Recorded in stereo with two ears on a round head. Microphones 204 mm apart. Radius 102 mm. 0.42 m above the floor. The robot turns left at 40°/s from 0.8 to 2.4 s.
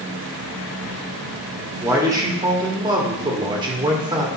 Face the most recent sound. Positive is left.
turn(degrees=-20)  # may be behind; listen again after turning